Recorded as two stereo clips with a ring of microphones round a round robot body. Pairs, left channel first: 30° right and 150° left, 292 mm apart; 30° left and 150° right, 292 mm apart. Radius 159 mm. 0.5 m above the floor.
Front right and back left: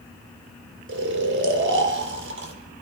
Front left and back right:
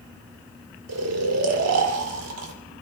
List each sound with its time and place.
0.9 s snoring: 165° right, 2 m